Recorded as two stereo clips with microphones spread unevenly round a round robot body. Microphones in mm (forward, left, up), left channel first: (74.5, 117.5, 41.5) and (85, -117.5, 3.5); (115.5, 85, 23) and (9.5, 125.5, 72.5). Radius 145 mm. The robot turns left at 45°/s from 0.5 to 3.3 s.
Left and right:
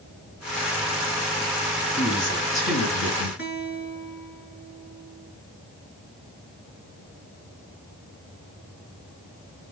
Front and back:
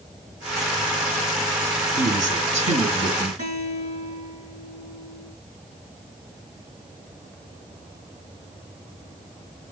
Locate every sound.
2.0 s a man speaking: straight behind, 5 m; by 3.3 s 120° left, 5 m
3.4 s a guitar: 150° left, 7 m